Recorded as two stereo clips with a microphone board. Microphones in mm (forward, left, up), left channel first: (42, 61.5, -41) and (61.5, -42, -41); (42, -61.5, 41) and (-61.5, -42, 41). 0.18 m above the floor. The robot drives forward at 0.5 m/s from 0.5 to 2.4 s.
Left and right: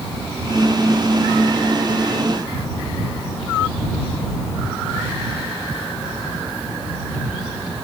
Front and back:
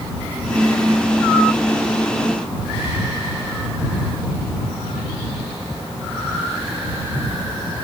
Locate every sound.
Only background noise.